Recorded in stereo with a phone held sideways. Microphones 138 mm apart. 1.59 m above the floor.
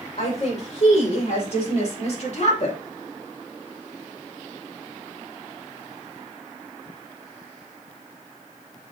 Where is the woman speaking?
55° left (ahead or behind), 6 m.